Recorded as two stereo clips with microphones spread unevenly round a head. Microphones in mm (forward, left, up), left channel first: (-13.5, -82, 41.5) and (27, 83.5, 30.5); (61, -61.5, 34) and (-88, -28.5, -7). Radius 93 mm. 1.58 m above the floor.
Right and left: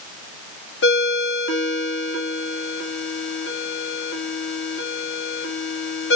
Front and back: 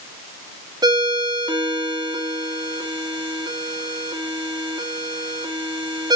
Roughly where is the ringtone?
Behind right.